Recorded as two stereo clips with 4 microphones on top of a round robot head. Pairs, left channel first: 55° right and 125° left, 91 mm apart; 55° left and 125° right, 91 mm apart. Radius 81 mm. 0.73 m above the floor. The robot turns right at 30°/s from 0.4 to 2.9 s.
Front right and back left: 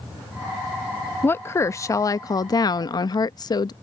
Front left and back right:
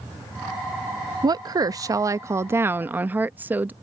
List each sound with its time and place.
1.2 s a woman speaking: 115° right; by 3.7 s 65° right